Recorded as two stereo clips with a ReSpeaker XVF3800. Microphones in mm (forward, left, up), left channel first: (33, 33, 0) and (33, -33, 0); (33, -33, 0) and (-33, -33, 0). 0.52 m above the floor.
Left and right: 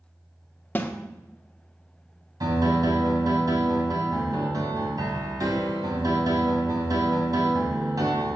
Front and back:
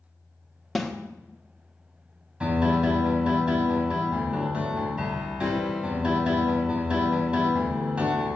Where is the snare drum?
80° left, 1.0 m.